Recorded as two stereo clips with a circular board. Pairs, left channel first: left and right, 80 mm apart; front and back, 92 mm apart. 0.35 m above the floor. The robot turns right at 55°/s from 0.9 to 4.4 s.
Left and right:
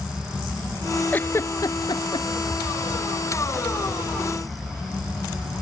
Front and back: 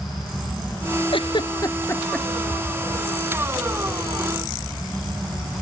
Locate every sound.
1.1 s a giggle: 20° left; by 2.3 s 80° left